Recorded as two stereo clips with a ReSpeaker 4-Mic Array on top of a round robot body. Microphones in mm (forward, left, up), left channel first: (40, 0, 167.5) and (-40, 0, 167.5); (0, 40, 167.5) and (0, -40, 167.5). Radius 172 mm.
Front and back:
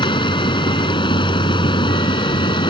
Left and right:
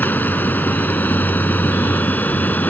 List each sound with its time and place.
0.0 s running water: 20° left